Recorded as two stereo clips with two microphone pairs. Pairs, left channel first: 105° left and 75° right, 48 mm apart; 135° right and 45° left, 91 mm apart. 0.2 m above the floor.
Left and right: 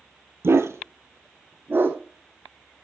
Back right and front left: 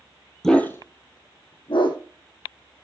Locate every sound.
0.4 s a dog barking: 50° right, 1.1 m; by 2.0 s 115° right, 2.5 m